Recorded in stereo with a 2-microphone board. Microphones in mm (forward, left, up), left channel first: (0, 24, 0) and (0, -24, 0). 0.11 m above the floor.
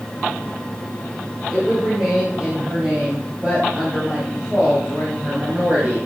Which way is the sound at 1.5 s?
10° right (ahead or behind).